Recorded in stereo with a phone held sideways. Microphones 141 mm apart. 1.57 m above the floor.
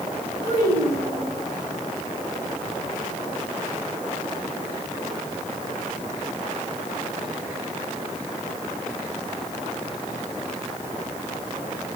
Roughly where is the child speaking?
Left.